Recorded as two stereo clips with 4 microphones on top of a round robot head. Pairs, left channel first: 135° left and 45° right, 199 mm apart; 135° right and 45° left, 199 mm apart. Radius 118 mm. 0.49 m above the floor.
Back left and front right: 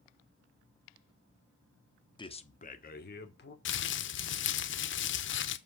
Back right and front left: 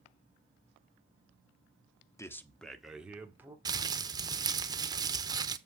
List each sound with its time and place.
2.2 s a man speaking: 170° left, 1.0 m; by 3.5 s 125° left, 1.7 m
3.6 s crumpling: 115° left, 0.8 m